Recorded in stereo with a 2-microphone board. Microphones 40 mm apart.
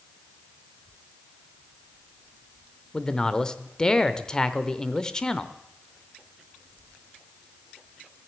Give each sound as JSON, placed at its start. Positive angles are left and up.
{"t": 2.9, "sound": "a man speaking", "side_deg": 15, "distance_m": 0.8}